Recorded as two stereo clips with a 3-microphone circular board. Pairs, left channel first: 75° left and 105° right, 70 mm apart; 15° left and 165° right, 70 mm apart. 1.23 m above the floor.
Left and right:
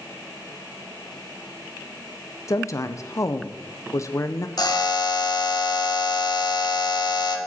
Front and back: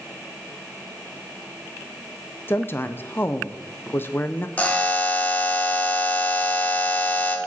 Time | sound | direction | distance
2.5 | a woman speaking | 60° left | 0.6 m
4.6 | a buzzer | 85° left | 1.2 m